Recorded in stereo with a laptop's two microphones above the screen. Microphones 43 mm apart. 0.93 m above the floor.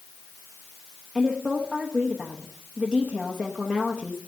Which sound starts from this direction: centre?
A woman speaking, at 1.1 s.